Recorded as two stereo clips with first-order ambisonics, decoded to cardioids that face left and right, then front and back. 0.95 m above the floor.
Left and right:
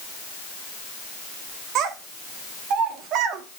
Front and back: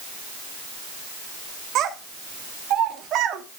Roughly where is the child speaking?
Behind right.